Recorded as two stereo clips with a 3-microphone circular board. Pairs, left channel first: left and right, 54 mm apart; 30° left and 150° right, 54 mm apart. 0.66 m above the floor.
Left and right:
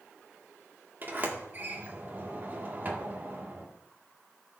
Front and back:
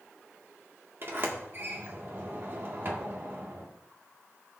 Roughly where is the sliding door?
Behind right.